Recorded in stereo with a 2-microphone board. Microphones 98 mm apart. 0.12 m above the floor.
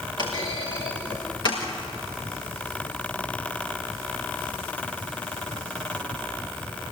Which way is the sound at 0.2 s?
50° left (ahead or behind).